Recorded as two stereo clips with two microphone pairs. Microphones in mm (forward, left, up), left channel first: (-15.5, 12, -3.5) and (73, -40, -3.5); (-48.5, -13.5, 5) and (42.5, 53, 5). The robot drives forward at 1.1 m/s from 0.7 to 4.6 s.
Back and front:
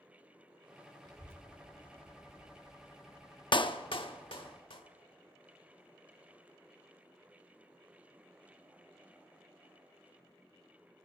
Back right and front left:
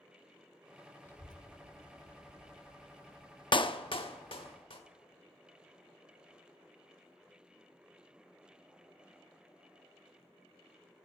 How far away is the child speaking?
About 0.9 m.